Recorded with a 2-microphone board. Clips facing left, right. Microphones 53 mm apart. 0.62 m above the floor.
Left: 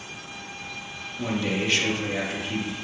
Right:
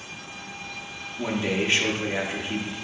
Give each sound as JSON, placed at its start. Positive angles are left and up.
{"t": 1.2, "sound": "a man speaking", "side_deg": -30, "distance_m": 0.7}